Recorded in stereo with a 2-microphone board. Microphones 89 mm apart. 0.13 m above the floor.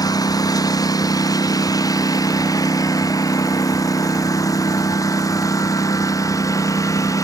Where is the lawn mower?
45° left (ahead or behind); by 7.2 s 40° left (ahead or behind).